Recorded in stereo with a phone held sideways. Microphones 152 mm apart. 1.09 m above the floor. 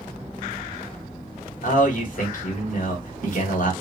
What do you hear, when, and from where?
1.6 s a man speaking: 55° left (ahead or behind), 1.2 m